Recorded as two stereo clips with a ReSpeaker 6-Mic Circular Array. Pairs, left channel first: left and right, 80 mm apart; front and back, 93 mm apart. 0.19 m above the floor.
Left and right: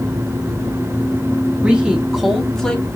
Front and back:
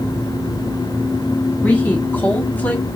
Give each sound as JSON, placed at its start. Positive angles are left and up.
{"t": 1.6, "sound": "a woman speaking", "azimuth_deg": -40, "distance_m": 1.7}